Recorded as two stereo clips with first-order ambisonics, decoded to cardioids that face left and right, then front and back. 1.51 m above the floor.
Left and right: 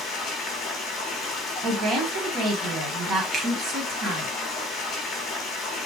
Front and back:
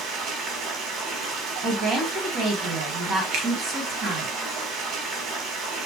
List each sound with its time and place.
0.0 s running water: 150° left, 1.5 m
1.6 s a woman speaking: 135° right, 1.9 m
3.3 s a finger snap: 155° right, 1.1 m